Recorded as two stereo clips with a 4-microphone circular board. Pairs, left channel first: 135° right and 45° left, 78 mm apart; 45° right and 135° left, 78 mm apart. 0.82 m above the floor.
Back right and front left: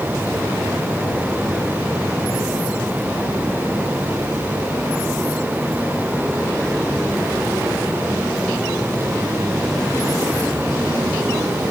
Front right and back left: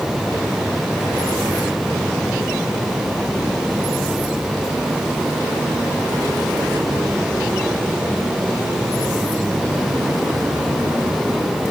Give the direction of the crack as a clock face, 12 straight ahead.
I don't hear a crack.